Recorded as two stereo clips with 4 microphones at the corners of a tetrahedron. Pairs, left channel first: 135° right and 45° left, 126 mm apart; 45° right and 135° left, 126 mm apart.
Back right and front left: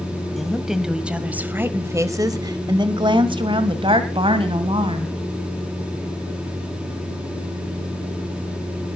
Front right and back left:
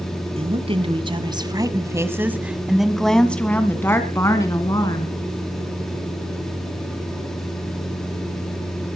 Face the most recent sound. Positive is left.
turn(degrees=10)